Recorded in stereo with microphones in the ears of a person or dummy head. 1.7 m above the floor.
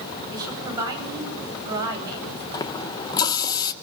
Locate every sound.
0.3 s a woman speaking: 20° right (ahead or behind), 9.5 m
2.5 s a running tap: 20° left (ahead or behind), 1.0 m